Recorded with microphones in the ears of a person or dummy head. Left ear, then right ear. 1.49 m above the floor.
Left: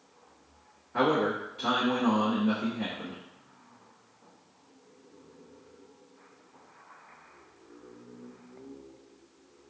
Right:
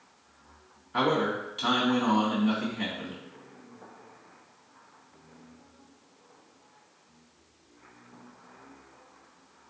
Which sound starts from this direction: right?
A man speaking, at 0.9 s.